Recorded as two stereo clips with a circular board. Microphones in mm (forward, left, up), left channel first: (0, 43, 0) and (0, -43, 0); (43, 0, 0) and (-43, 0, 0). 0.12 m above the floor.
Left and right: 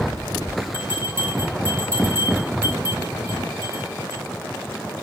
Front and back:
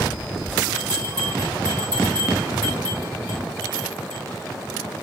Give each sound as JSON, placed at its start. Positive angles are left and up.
{"t": 0.7, "sound": "a bell", "azimuth_deg": -150, "distance_m": 6.5}